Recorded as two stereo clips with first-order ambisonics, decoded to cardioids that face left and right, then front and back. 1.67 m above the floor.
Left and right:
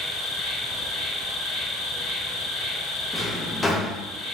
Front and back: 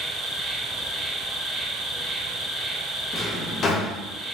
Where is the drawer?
20° left, 1.0 m.